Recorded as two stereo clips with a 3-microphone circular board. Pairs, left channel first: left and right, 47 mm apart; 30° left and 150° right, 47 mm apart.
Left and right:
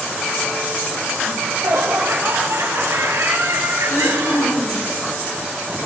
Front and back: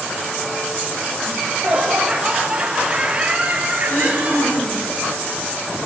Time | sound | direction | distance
1.3 | laughter | 75° right | 4.5 m
3.9 | throat clearing | 70° left | 7 m